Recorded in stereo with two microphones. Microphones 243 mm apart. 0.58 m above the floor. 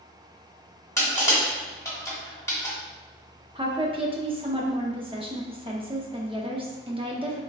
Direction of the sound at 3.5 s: 20° right (ahead or behind).